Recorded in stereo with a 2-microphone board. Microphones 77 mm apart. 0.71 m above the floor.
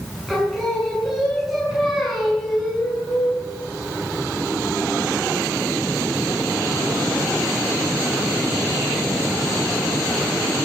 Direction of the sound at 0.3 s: 5° right (ahead or behind).